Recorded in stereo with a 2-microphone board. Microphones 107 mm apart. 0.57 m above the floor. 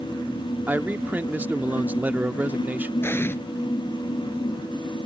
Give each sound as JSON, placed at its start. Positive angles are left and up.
{"t": 0.7, "sound": "a man speaking", "side_deg": -15}
{"t": 3.0, "sound": "an explosion", "side_deg": 20}